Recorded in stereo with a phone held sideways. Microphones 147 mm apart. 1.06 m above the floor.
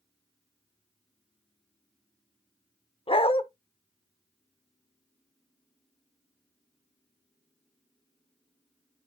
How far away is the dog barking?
About 0.9 m.